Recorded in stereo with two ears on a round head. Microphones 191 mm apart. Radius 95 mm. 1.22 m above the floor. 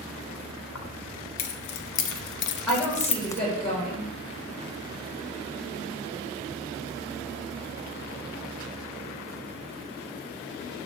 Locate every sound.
0.8 s keys jangling: 75° left (ahead or behind), 1.7 m; by 3.4 s 10° left (ahead or behind), 0.6 m
2.7 s a woman speaking: centre (ahead or behind), 5 m